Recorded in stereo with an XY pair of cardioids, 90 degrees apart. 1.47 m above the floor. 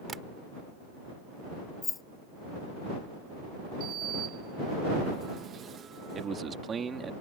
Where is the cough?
I don't hear a cough.